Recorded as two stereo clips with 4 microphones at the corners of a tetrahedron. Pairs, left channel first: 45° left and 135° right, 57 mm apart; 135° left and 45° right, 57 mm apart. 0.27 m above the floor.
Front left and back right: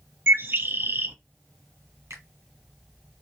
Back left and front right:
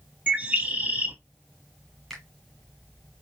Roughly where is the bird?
Right.